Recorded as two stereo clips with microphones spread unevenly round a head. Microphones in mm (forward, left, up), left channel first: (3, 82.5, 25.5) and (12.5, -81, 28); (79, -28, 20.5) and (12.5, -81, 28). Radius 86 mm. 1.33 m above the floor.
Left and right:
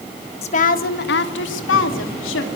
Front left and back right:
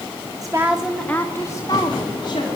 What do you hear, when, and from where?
0.4 s a woman speaking: 150° left, 1.5 m; by 2.5 s 95° left, 3 m